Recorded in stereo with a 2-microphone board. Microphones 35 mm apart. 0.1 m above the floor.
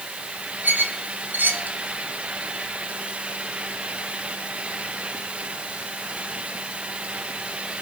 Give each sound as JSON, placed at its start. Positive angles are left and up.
{"t": 0.6, "sound": "a squeak", "side_deg": -75, "distance_m": 1.4}